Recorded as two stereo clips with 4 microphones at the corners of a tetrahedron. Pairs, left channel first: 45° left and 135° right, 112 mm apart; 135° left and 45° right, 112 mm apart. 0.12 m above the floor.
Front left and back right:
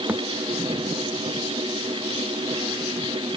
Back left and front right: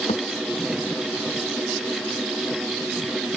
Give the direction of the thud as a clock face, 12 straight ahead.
7 o'clock.